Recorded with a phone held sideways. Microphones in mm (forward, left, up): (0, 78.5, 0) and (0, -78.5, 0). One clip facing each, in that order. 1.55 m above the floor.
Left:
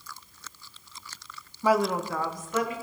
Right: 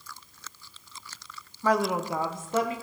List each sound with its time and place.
1.6 s a woman speaking: 15° left (ahead or behind), 0.6 m; by 2.7 s 35° right (ahead or behind), 1.8 m